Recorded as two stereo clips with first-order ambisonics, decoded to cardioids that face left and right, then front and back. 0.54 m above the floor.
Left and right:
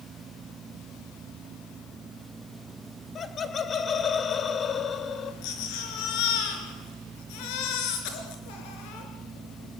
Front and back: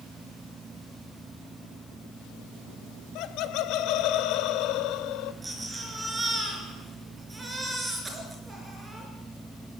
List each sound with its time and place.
3.1 s laughter: 25° left, 1.8 m
5.4 s a baby crying: 100° left, 4.5 m